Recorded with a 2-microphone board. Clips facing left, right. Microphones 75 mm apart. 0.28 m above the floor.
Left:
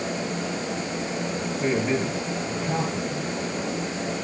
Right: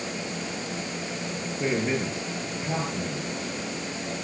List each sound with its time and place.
1.6 s a man speaking: 5° right (ahead or behind), 5.5 m